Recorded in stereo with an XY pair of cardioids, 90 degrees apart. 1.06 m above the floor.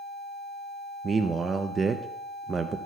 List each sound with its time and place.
1.0 s a man speaking: 45° right, 0.6 m